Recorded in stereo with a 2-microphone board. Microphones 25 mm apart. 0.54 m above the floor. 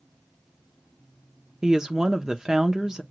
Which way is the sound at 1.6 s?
25° right (ahead or behind).